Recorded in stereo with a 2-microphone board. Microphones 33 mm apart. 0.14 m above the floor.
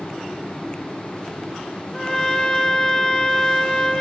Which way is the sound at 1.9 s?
15° left (ahead or behind).